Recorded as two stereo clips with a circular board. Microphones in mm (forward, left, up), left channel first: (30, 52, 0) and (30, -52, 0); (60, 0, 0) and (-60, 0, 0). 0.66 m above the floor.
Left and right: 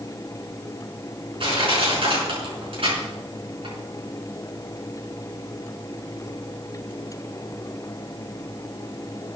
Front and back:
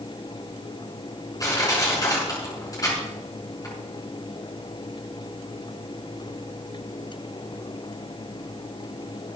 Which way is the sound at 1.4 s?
60° right.